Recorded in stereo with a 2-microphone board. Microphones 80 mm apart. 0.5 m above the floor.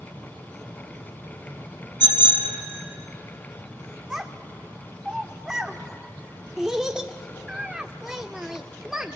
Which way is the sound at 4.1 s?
5° right (ahead or behind).